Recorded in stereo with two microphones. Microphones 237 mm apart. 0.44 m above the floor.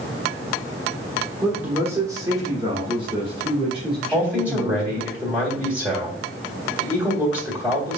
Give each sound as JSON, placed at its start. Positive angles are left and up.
{"t": 1.4, "sound": "a man speaking", "side_deg": -5, "distance_m": 1.3}
{"t": 4.1, "sound": "a man speaking", "side_deg": -5, "distance_m": 1.5}